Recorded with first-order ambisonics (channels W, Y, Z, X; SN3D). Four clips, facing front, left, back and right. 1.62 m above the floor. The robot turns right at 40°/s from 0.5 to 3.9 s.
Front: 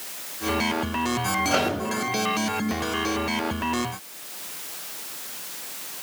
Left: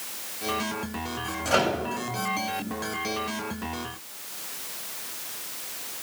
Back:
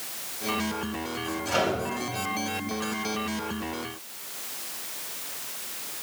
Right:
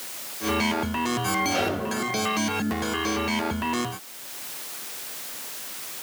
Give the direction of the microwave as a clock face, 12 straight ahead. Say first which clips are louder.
Left 1 dB, even; 10 o'clock.